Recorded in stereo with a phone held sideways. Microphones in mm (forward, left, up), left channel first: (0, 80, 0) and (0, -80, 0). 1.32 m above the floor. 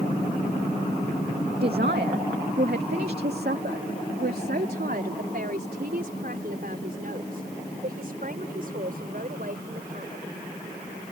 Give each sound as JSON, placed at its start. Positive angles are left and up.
{"t": 1.6, "sound": "a man speaking", "side_deg": -80}